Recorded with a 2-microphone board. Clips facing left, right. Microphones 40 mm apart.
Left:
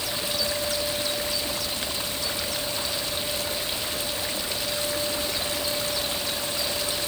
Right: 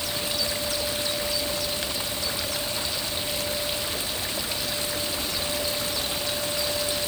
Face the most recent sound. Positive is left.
No sound to turn to.